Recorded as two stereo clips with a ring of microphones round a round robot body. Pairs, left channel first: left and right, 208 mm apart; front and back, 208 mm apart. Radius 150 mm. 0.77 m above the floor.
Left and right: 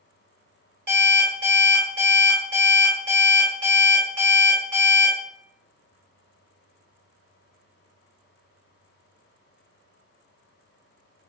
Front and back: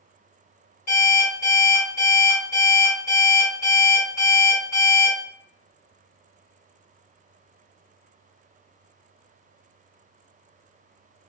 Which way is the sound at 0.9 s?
55° right.